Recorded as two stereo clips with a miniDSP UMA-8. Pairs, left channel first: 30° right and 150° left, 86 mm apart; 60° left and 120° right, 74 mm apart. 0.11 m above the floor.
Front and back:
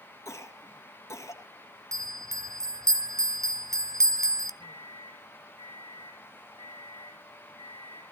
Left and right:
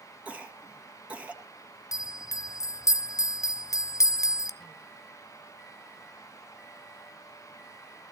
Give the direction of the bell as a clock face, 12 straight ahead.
9 o'clock.